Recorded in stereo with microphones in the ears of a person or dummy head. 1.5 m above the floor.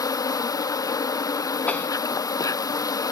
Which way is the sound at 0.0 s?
10° left (ahead or behind).